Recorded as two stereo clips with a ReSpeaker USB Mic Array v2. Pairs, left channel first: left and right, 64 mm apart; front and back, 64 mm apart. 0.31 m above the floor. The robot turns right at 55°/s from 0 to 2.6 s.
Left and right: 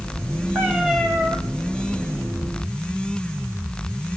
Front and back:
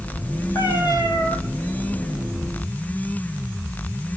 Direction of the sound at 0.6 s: 20° right.